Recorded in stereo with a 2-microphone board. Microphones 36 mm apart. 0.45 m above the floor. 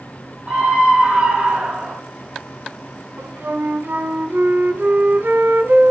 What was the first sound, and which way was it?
A scream, 35° right (ahead or behind).